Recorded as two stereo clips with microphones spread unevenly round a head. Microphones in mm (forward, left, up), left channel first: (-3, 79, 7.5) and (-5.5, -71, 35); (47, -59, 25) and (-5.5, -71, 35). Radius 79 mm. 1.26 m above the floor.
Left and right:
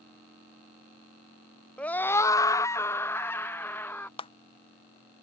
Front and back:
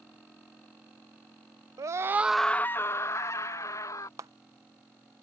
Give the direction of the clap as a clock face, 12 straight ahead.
7 o'clock.